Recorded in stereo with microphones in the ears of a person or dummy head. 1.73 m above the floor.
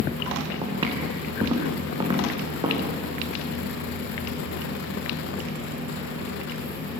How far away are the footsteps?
About 5.5 m.